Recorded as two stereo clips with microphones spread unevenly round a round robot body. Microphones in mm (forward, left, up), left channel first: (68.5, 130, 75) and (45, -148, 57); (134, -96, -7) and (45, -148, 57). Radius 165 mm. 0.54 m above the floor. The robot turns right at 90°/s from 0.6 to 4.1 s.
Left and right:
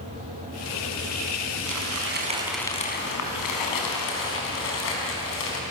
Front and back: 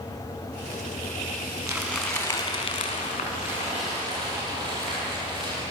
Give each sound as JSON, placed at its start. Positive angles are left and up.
{"t": 1.7, "sound": "crumpling", "azimuth_deg": -85, "distance_m": 5.0}